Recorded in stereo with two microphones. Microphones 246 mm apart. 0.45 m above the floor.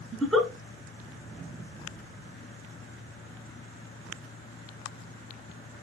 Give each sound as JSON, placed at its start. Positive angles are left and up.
{"t": 0.1, "sound": "a giggle", "side_deg": 0, "distance_m": 1.6}